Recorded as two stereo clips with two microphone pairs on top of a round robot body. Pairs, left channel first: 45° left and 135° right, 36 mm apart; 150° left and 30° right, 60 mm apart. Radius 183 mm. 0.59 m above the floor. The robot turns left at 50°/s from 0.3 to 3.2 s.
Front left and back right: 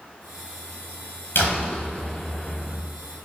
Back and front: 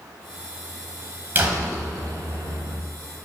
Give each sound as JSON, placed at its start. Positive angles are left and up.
{"t": 1.4, "sound": "a door slam", "azimuth_deg": 30, "distance_m": 4.0}